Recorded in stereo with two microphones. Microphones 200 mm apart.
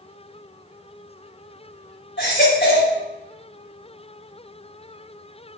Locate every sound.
2.2 s a baby crying: 70° left (ahead or behind), 4 m